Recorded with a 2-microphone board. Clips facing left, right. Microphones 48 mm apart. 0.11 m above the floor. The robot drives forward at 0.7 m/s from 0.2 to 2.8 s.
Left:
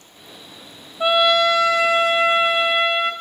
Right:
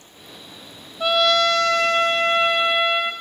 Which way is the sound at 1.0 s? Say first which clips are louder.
Left 2 dB; 20° left (ahead or behind).